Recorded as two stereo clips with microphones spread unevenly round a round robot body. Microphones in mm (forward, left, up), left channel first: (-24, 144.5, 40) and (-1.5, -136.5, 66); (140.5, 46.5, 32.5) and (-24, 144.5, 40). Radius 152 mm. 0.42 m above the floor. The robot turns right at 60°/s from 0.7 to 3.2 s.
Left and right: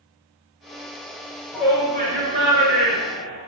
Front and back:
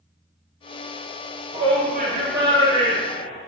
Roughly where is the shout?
Behind.